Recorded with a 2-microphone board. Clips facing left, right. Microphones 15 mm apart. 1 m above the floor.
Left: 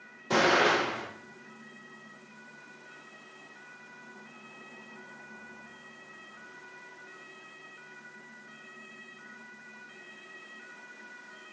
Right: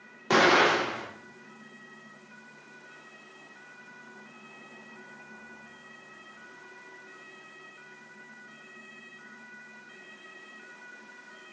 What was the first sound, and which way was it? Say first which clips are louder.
An explosion: right 3 dB; 65° right (ahead or behind).